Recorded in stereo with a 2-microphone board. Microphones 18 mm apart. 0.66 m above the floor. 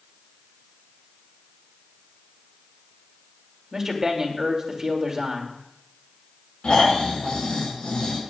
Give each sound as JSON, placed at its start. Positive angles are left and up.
{"t": 3.7, "sound": "a man speaking", "side_deg": -30, "distance_m": 2.5}
{"t": 6.6, "sound": "snoring", "side_deg": 80, "distance_m": 6.5}